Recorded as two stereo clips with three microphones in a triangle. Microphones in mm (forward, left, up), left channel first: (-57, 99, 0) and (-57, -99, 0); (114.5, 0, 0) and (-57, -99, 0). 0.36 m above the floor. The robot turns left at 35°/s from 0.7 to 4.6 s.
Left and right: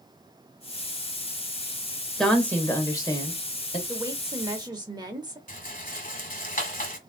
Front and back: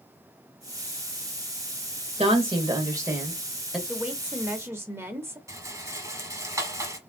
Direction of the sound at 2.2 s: 175° left.